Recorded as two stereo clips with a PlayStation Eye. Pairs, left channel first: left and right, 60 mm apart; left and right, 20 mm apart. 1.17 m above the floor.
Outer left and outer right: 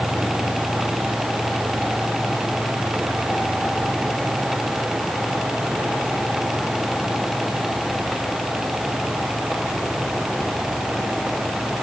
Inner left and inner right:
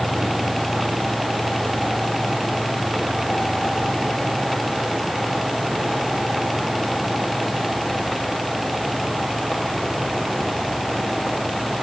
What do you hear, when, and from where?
Only background noise.